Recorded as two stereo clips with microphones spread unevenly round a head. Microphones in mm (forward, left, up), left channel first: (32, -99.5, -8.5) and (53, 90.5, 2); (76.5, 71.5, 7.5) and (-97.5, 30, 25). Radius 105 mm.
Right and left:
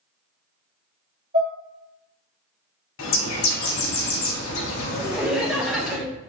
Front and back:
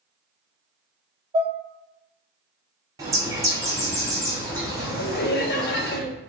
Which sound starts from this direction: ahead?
Laughter, at 5.0 s.